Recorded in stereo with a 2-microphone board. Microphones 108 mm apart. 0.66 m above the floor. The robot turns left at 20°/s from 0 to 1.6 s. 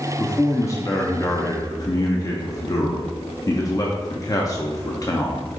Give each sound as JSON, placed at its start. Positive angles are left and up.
{"t": 0.2, "sound": "a man speaking", "side_deg": 25, "distance_m": 0.5}